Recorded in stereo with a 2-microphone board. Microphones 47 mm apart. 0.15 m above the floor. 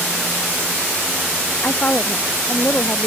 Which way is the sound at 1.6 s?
40° left (ahead or behind).